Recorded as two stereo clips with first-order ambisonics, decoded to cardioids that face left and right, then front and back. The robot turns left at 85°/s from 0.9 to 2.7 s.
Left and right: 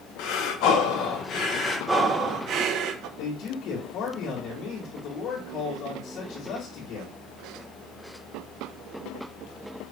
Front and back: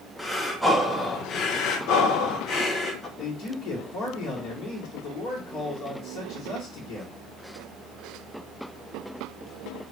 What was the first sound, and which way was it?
Breathing, 90° left.